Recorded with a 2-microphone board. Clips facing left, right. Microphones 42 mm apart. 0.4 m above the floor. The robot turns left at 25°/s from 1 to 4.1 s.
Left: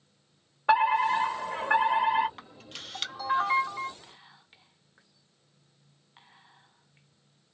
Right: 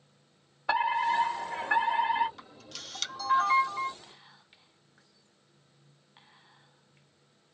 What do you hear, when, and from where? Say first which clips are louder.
0.7 s a fire alarm: left 4 dB; 95° left, 2.5 m; by 2.3 s 60° left, 2.5 m
2.4 s a camera shutter: left 2 dB; 40° left, 1.3 m; by 3.9 s straight ahead, 1.3 m
4.0 s whispering: left 1 dB; 10° left (ahead or behind), 0.8 m